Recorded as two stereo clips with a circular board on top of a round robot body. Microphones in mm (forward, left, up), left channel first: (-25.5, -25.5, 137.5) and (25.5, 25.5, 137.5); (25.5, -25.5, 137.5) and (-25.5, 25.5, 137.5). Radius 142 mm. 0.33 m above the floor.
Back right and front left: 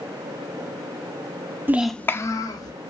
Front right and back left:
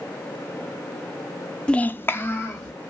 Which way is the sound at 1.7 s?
20° left.